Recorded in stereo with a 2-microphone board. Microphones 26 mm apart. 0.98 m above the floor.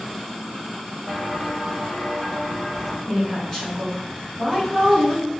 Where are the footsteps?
20° right (ahead or behind), 1.7 m; by 3.0 s 5° right (ahead or behind), 2.5 m.